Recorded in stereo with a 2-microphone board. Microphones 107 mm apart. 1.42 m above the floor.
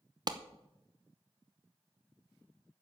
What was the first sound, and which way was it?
A clap, 40° right (ahead or behind).